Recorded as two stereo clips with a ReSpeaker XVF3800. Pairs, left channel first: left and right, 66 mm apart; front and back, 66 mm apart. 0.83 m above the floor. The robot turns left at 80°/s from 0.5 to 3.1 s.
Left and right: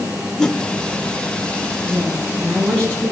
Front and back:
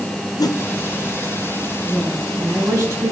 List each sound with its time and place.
0.4 s a whoosh: 10° left, 1.0 m; by 0.6 s straight ahead, 1.0 m
1.8 s a woman speaking: 115° right, 6 m; by 3.1 s 145° left, 6 m